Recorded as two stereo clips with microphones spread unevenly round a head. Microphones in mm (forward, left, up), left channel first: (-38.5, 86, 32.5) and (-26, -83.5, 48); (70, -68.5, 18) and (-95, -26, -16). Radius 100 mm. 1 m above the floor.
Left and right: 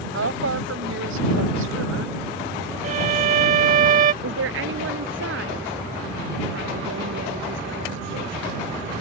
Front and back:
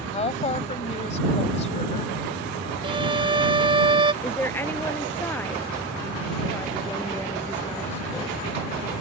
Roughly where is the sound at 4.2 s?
Right.